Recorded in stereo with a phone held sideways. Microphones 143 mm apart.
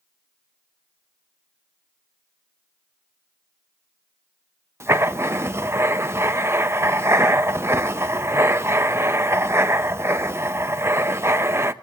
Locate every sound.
4.8 s writing: 20° right (ahead or behind), 0.7 m